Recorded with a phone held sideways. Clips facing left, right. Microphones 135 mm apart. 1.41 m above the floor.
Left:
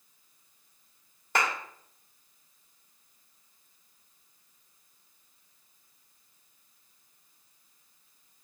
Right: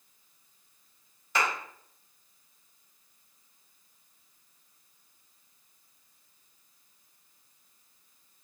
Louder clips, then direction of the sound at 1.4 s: Left 1 dB; 55° left (ahead or behind).